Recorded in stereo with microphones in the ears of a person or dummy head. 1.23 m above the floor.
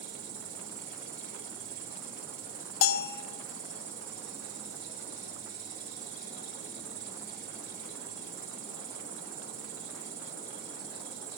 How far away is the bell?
About 0.9 m.